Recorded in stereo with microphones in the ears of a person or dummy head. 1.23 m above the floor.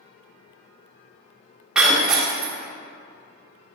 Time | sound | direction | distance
1.8 | breaking glass | 5° right (ahead or behind) | 1.0 m